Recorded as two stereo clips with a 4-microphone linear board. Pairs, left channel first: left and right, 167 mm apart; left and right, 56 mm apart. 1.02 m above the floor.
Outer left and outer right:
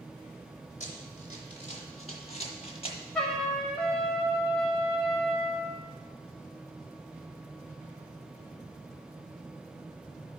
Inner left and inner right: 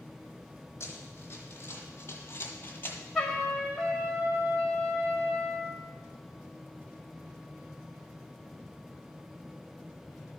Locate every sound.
0.8 s running footsteps: 45° left (ahead or behind), 2.5 m; by 3.0 s 35° left (ahead or behind), 1.4 m
3.1 s a trumpet: 5° left (ahead or behind), 1.9 m